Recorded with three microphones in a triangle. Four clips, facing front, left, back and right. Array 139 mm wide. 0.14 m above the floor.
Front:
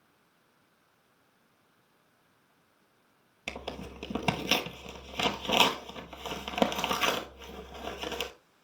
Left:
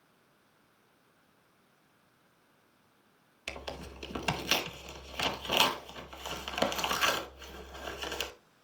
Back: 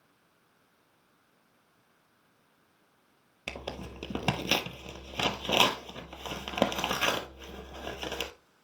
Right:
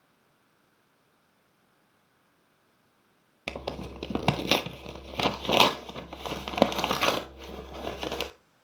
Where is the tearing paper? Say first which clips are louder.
Right 7 dB, even; 90° right, 0.9 m.